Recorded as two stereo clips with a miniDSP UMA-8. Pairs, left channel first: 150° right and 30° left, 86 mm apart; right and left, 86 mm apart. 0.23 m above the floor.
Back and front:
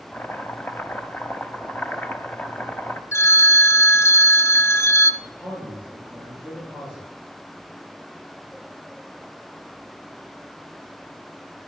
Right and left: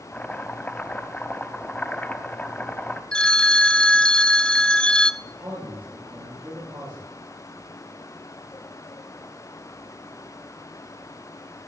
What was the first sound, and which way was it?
Chopping, 130° right.